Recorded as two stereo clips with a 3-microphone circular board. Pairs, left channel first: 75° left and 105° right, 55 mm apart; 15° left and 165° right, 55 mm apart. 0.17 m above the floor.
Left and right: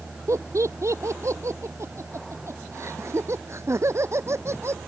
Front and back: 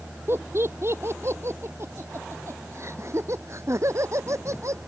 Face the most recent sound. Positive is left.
turn(degrees=-140)